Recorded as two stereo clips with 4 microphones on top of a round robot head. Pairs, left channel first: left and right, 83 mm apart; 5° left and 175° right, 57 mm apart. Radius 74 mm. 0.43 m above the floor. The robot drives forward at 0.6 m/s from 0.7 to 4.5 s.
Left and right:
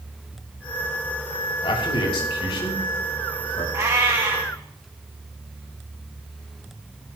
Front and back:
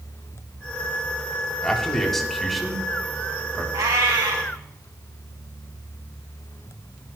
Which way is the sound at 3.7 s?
150° right.